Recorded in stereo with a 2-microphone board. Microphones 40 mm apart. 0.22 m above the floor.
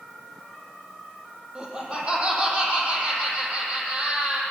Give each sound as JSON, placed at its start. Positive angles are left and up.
{"t": 1.6, "sound": "laughter", "side_deg": -25, "distance_m": 7.5}